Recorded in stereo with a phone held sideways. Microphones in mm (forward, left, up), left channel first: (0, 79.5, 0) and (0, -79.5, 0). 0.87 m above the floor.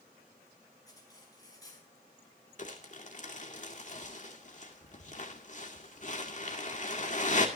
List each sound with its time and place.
0.9 s cutlery clinking: 25° left (ahead or behind), 5 m
2.6 s crumpling: 50° left (ahead or behind), 2.5 m